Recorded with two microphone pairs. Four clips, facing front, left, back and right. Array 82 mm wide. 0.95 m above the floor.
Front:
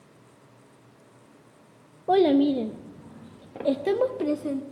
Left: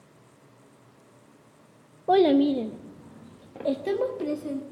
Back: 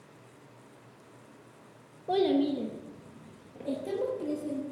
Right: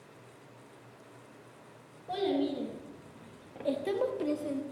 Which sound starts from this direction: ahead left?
A child speaking, at 2.1 s.